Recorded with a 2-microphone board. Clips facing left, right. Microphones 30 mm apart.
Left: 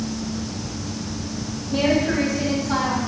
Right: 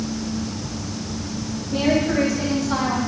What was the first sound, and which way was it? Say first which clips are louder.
A woman speaking: even; 35° left (ahead or behind).